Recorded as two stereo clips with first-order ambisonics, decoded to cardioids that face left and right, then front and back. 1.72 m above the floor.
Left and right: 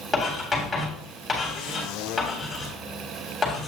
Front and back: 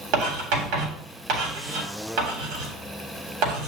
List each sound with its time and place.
0.1 s writing: 175° left, 3 m